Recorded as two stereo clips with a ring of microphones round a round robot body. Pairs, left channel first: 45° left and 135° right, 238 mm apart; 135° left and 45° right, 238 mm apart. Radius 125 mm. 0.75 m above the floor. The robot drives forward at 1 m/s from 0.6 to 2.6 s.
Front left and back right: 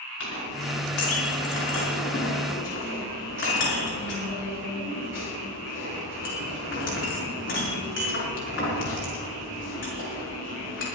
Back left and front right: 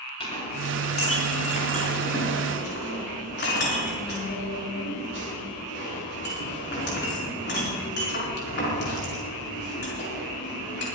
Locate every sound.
0.2 s a clink: 70° left, 6 m; by 10.8 s 85° left, 5.5 m